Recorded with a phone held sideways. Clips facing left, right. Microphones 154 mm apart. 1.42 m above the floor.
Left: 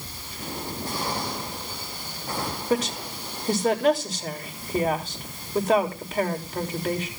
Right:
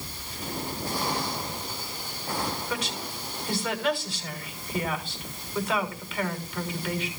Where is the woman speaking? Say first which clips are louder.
Left 8 dB; 40° left (ahead or behind), 3.5 m.